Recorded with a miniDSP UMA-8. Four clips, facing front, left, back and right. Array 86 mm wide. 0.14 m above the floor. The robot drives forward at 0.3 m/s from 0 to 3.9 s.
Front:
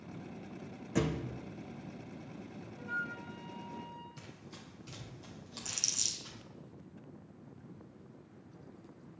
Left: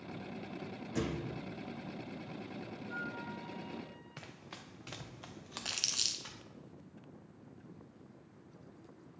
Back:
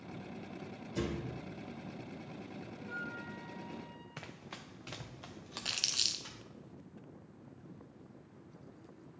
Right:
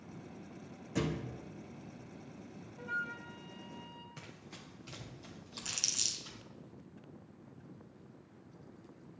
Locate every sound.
0.9 s a thud: straight ahead, 1.2 m
2.8 s a flute: 75° right, 1.3 m; by 4.1 s 90° right, 1.3 m
4.2 s running footsteps: 165° left, 1.1 m; by 6.4 s 110° left, 2 m
5.7 s crumpling: 165° left, 0.8 m